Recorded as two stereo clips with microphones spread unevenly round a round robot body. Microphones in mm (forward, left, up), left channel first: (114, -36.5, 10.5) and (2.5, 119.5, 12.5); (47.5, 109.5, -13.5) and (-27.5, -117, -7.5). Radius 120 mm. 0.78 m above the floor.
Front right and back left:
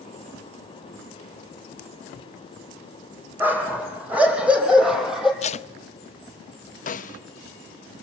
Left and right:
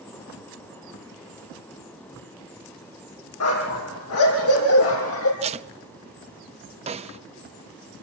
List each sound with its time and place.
3.4 s a dog barking: 45° left, 8 m; by 5.3 s 35° left, 6.5 m
5.4 s tape being pulled: 65° right, 0.7 m
6.9 s a snare drum: 55° right, 1.0 m